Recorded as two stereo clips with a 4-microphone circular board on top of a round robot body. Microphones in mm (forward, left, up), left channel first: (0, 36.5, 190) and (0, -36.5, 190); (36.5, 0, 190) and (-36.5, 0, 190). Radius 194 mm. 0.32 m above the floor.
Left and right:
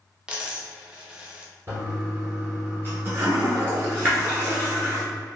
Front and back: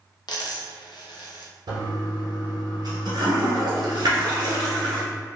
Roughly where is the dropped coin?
Ahead.